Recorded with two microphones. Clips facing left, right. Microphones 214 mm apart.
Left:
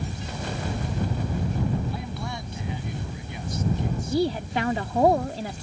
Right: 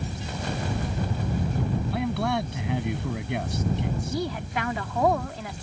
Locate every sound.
1.9 s a man speaking: 65° right (ahead or behind)
4.1 s a woman speaking: 30° left (ahead or behind)